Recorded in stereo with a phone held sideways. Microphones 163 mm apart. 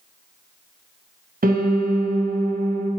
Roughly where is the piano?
Right.